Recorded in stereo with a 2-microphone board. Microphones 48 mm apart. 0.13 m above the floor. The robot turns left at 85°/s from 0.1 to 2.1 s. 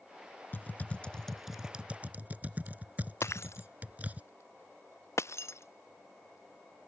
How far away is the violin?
No violin in this recording.